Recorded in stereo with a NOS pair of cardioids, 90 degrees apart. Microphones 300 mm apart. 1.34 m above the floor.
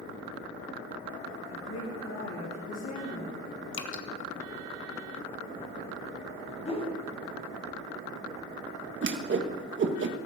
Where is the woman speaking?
65° left, 6.5 m; by 3.6 s 55° left, 8 m.